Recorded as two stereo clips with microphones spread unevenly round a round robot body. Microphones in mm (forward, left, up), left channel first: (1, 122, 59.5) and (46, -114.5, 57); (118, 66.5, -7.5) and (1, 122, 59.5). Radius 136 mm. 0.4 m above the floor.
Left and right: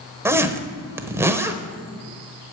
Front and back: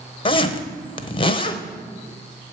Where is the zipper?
Straight ahead, 1.0 m.